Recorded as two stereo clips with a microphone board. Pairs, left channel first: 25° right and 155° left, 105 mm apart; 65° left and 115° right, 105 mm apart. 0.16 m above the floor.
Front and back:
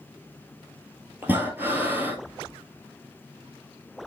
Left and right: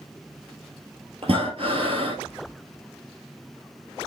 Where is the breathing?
130° right, 1.6 m.